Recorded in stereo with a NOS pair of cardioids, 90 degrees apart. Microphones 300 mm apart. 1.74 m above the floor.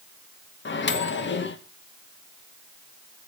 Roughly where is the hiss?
I don't hear a hiss.